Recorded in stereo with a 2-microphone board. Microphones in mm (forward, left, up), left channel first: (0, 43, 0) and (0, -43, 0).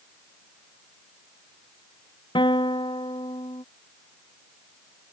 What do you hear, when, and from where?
2.4 s a guitar: 80° left